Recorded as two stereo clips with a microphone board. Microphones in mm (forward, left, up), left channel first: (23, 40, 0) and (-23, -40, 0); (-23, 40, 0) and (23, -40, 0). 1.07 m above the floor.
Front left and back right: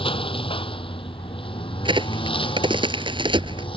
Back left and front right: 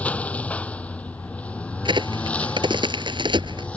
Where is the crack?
90° right.